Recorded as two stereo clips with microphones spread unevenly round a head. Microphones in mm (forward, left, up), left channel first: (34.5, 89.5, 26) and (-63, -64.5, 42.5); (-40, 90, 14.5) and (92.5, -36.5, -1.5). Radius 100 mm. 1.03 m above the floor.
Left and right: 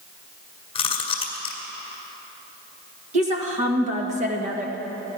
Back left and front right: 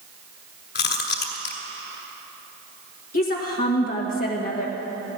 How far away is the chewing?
About 1.7 m.